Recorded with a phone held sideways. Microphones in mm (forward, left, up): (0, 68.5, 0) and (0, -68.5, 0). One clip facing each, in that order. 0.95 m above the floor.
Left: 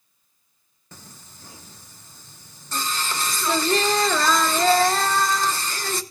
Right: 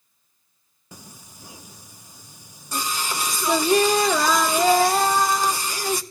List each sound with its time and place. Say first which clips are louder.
0.9 s singing: right 2 dB; 10° right (ahead or behind), 0.7 m